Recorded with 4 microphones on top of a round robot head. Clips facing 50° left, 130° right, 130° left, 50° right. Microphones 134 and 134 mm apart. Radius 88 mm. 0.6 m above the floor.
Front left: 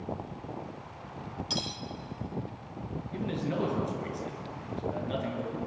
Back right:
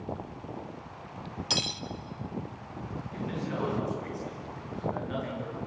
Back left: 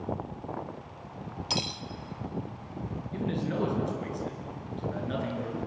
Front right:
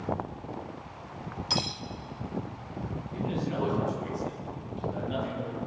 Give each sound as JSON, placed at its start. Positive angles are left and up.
{"t": 1.5, "sound": "cutlery clinking", "azimuth_deg": -160, "distance_m": 1.0}
{"t": 3.1, "sound": "a man speaking", "azimuth_deg": 110, "distance_m": 9.0}